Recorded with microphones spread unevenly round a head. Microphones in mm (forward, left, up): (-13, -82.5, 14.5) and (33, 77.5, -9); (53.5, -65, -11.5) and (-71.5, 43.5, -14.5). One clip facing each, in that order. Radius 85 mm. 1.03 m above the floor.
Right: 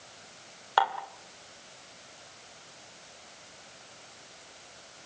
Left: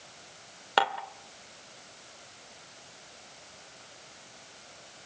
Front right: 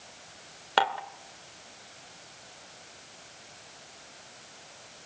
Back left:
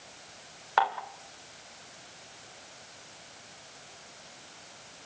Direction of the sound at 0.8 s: 15° left.